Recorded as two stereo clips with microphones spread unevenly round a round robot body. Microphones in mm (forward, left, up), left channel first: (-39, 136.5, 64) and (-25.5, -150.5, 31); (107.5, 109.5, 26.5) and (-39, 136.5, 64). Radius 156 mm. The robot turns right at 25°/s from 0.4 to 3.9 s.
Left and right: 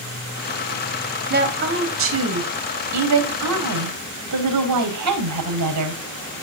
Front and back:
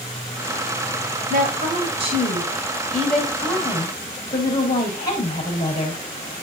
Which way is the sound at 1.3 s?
140° right.